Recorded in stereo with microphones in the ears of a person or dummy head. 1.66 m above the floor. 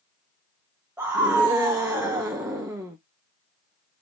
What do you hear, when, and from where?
1.0 s a scream: 10° right (ahead or behind), 1.0 m